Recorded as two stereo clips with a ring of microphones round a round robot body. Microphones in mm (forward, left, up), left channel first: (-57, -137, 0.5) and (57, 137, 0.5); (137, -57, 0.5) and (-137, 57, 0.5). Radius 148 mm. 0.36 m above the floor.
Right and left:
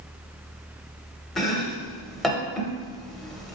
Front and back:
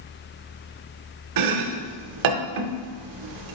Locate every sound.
1.4 s chopping: 160° left, 0.5 m